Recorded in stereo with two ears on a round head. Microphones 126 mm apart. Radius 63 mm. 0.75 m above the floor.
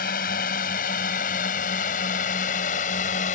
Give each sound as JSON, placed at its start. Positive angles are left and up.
{"t": 0.0, "sound": "a drone", "side_deg": 70}